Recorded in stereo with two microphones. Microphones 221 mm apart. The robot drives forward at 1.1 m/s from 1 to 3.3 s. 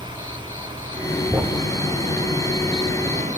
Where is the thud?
10° right (ahead or behind), 1.2 m; by 1.7 s 5° right (ahead or behind), 1.6 m.